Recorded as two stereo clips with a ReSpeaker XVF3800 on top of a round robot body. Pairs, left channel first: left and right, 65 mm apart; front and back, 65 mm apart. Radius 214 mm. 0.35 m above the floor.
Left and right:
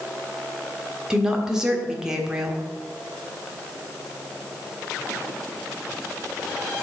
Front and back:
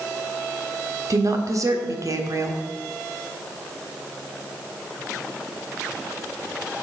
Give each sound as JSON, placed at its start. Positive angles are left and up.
{"t": 1.1, "sound": "a woman speaking", "azimuth_deg": -170, "distance_m": 1.7}